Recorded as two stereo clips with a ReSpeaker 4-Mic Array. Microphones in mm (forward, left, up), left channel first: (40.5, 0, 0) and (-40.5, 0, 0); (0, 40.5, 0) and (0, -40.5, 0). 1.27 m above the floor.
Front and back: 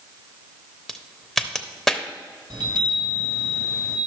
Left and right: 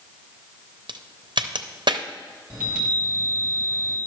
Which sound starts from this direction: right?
A crack, at 0.9 s.